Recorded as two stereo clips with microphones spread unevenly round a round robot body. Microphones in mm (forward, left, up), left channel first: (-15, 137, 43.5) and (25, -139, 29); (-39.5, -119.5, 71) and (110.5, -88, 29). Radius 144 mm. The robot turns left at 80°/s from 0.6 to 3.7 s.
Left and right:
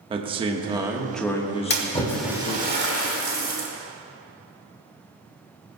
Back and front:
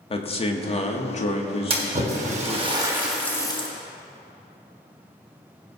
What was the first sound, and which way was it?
A man speaking, 125° right.